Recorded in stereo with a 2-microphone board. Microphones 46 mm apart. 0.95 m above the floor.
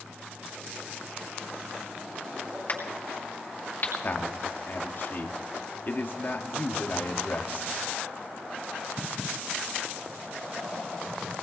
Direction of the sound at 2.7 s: 50° left (ahead or behind).